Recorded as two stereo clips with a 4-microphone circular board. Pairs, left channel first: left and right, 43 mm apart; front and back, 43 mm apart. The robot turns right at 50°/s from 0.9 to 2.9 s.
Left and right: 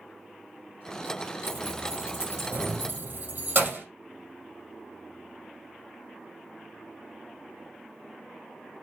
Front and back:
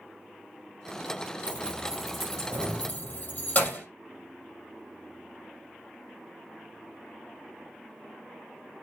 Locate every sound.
1.5 s keys jangling: 125° right, 3 m; by 3.9 s 55° right, 3 m